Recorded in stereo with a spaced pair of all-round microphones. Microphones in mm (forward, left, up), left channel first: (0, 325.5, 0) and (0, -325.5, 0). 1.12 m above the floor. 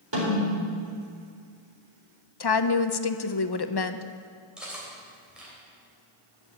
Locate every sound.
0.1 s a snare drum: 40° right (ahead or behind), 4.5 m
2.4 s a woman speaking: 40° left (ahead or behind), 0.6 m
4.6 s cutlery clinking: centre (ahead or behind), 3.5 m